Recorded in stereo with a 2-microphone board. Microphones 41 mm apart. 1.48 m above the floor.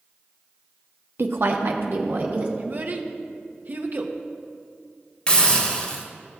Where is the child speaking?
50° right (ahead or behind), 0.8 m.